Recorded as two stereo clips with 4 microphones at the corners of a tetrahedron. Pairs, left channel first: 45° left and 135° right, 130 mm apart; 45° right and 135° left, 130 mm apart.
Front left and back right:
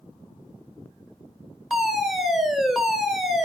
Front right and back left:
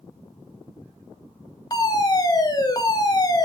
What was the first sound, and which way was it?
A fire alarm, 50° right.